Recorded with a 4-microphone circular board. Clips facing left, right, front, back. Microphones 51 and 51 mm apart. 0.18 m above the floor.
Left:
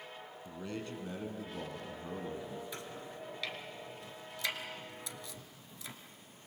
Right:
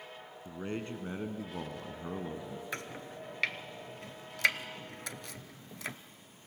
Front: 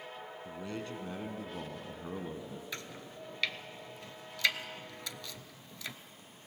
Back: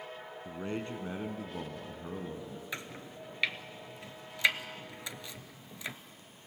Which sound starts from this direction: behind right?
A man speaking, at 0.5 s.